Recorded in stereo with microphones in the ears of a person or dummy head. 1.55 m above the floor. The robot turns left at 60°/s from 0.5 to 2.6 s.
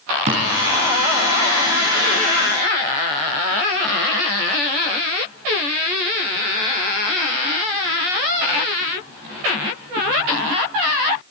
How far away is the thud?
About 4 m.